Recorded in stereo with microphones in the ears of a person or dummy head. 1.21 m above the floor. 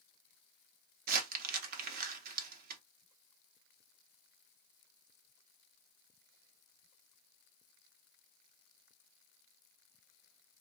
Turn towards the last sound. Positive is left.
turn(degrees=-45)  # may be behind; listen again after turning